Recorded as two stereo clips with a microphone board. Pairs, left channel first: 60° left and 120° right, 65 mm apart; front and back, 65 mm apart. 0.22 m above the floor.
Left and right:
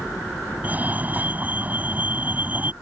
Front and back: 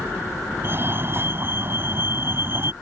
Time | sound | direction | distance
0.6 | a fire alarm | 170° right | ?